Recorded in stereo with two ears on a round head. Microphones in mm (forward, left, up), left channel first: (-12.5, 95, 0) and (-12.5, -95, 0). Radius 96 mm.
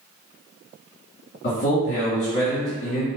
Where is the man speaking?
55° left (ahead or behind), 1.1 m.